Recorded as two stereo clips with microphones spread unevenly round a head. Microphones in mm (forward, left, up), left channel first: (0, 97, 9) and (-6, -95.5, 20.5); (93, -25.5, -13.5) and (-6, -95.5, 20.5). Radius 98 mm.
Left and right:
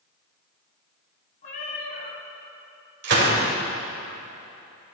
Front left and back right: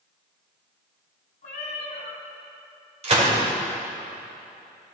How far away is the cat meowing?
About 1.5 m.